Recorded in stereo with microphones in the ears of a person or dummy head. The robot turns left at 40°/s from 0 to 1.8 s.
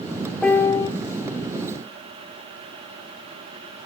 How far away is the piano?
About 0.6 m.